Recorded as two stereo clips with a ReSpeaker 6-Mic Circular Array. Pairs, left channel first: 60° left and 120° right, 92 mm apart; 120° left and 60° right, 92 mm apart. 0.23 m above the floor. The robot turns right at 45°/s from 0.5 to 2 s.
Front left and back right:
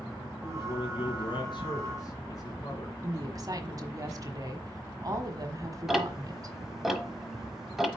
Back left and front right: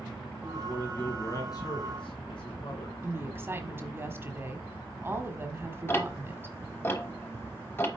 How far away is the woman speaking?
About 1.2 m.